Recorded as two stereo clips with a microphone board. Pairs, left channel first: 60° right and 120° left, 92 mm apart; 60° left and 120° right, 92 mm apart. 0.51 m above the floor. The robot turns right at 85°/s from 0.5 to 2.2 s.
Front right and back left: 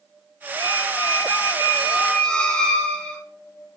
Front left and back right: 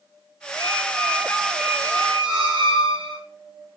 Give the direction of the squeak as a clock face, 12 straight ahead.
9 o'clock.